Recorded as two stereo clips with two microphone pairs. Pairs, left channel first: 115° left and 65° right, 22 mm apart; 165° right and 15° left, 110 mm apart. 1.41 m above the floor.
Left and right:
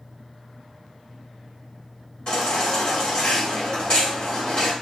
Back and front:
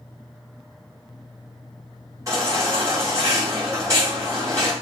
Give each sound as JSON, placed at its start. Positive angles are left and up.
{"t": 2.3, "sound": "a baby crying", "azimuth_deg": 75, "distance_m": 4.0}